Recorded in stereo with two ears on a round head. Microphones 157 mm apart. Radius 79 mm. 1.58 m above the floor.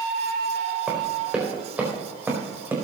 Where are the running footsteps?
5° right (ahead or behind), 4 m; by 2.8 s 15° right (ahead or behind), 5 m.